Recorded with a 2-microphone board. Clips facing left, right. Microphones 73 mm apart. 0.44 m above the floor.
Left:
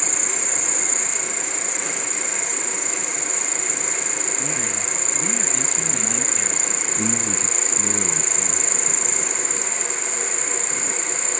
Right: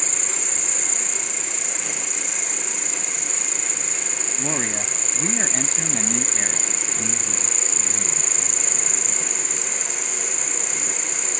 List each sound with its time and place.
0.0 s an insect: 30° left (ahead or behind)
4.4 s a man speaking: 45° right (ahead or behind)
7.0 s a man speaking: 80° left